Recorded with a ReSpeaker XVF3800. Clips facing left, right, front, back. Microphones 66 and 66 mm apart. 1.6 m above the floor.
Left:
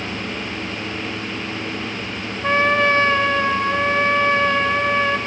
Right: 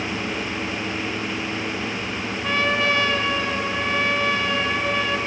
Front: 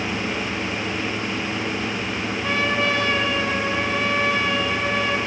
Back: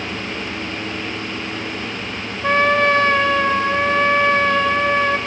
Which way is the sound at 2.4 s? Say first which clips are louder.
Left 5 dB, back 8 dB; 140° left.